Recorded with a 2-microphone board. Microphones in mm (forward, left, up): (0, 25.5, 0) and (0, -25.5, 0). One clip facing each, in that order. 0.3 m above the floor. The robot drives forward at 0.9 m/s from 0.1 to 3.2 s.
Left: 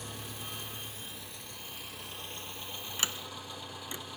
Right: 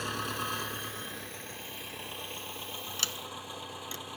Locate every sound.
0.0 s an engine running: 80° right, 1.0 m; by 4.2 s 20° right (ahead or behind), 3 m
3.0 s a sliding door: 20° left (ahead or behind), 0.8 m; by 4.0 s 15° left (ahead or behind), 0.9 m